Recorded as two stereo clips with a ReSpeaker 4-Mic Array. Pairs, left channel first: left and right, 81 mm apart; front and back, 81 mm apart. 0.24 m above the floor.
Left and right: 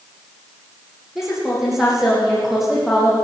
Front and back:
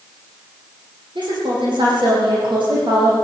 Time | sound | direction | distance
1.1 | a woman speaking | 175° right | 10 m